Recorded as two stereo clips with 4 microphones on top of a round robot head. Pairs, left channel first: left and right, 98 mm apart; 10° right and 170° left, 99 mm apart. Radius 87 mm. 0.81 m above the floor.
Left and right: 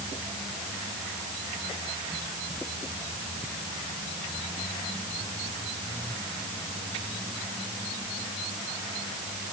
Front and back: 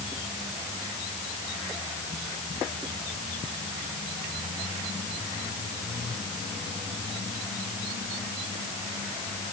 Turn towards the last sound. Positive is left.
No sound to turn to.